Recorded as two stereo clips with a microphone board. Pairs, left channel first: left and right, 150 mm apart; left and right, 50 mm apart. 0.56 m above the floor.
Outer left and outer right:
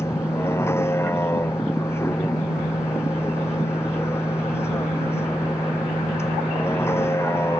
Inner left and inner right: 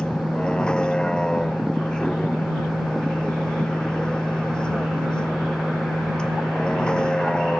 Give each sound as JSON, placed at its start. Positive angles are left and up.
{"t": 0.0, "sound": "a vehicle", "side_deg": 15}